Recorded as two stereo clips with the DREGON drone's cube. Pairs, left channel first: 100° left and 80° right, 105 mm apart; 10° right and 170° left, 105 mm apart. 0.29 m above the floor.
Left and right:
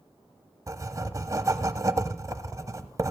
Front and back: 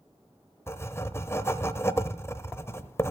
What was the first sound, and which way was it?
Writing, 60° right.